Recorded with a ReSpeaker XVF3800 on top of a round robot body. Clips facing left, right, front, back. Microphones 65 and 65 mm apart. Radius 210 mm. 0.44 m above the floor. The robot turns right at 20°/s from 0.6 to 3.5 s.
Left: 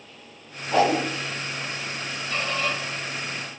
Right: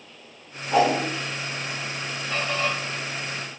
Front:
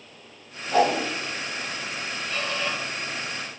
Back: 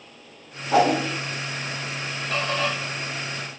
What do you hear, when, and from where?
0.7 s a whoosh: 175° right, 0.9 m; by 1.0 s 170° right, 0.9 m
2.3 s a squeak: 165° right, 0.7 m; by 2.8 s 155° right, 0.7 m